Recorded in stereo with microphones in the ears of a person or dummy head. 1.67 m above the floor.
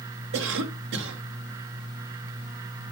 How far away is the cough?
About 1.1 m.